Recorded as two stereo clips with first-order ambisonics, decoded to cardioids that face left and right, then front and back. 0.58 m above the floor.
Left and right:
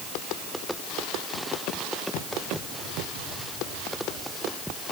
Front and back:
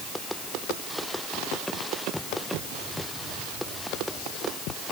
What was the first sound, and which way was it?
Only background noise.